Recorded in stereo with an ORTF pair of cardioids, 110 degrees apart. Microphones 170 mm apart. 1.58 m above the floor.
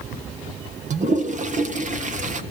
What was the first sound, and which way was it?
A toilet flushing, 45° right.